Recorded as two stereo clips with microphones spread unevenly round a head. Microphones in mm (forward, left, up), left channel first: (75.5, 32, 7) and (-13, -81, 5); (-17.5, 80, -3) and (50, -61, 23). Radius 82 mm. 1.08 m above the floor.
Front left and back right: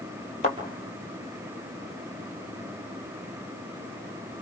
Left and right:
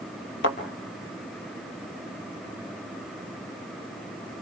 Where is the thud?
110° left, 3.5 m.